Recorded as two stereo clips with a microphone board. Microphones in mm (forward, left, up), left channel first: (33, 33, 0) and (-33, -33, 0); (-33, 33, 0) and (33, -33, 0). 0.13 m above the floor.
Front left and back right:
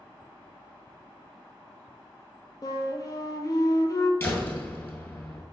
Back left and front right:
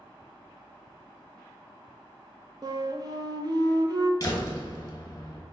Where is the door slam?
105° left, 1.7 m.